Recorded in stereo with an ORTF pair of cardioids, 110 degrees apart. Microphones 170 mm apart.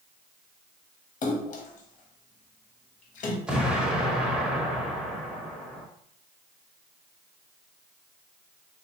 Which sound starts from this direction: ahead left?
A splash, at 1.2 s.